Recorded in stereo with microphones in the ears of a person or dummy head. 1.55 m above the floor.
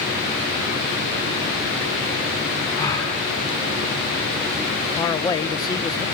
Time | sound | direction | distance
2.7 | a gasp | 30° left (ahead or behind) | 9.5 m
5.0 | a man speaking | 20° left (ahead or behind) | 0.9 m